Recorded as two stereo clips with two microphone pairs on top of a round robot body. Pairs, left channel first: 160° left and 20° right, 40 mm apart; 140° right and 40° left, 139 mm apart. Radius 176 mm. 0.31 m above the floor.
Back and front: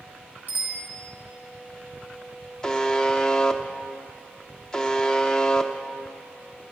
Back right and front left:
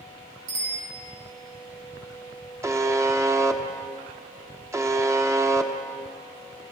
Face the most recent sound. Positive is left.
turn(degrees=90)